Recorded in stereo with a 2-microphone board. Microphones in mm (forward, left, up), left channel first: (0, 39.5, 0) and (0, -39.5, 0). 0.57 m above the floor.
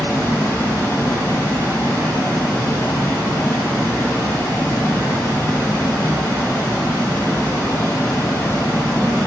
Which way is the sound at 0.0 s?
45° left (ahead or behind).